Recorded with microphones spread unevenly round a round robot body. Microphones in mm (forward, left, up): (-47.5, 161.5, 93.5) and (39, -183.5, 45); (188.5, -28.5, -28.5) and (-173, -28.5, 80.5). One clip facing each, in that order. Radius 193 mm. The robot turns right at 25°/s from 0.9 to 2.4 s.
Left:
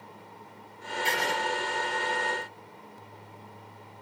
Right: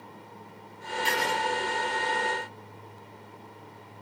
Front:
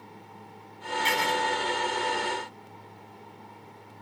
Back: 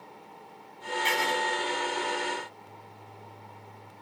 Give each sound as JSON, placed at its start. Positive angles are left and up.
{"t": 1.1, "sound": "writing", "azimuth_deg": 0, "distance_m": 1.5}